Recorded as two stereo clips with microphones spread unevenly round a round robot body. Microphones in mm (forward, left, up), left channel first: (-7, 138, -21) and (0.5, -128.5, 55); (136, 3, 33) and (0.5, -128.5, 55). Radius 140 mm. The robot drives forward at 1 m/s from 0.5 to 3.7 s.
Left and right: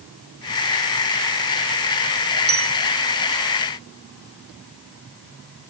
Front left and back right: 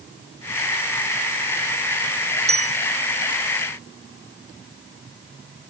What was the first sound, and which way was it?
A bell, 100° right.